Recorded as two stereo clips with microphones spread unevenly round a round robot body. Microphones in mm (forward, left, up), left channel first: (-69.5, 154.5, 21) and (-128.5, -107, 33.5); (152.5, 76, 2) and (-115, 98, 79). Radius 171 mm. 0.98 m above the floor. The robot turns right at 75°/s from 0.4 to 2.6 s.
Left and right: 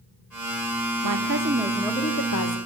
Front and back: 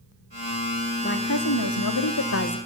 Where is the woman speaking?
70° right, 1.5 m; by 2.6 s 45° left, 1.5 m.